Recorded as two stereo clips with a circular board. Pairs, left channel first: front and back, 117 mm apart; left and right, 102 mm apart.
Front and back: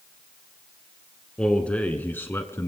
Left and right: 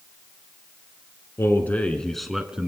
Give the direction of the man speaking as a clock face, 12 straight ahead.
10 o'clock.